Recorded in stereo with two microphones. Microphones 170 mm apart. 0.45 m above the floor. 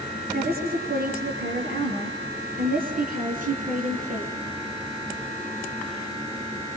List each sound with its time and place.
0.3 s a woman speaking: 65° right (ahead or behind), 7 m; by 4.4 s 50° right (ahead or behind), 5.5 m